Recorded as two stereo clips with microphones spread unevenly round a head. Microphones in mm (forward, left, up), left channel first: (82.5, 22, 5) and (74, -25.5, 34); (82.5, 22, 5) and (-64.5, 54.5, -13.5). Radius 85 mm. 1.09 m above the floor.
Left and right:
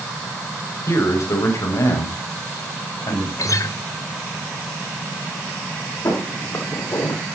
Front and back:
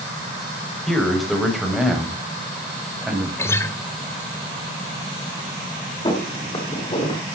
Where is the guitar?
60° left, 1.7 m.